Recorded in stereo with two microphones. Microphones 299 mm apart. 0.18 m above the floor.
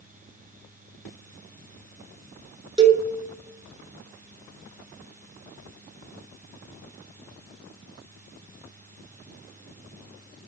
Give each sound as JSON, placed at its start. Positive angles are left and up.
{"t": 2.8, "sound": "a cowbell", "side_deg": -15, "distance_m": 0.6}